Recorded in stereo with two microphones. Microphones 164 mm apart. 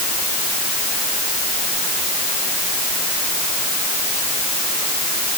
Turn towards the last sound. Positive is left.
No sound to turn to.